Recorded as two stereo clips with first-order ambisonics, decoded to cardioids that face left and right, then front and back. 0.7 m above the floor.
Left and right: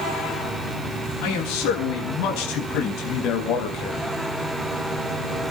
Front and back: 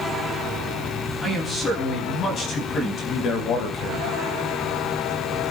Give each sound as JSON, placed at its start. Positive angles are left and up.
{"t": 1.2, "sound": "a man speaking", "azimuth_deg": 75, "distance_m": 6.5}